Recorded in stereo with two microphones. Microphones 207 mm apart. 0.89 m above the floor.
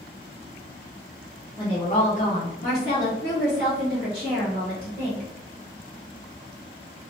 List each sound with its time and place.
1.6 s a woman speaking: 25° left (ahead or behind), 0.9 m; by 5.3 s 50° left (ahead or behind), 2 m